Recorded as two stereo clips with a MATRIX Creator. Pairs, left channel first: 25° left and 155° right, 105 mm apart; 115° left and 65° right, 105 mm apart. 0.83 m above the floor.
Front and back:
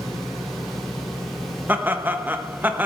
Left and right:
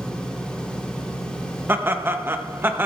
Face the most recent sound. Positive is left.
turn(degrees=-105)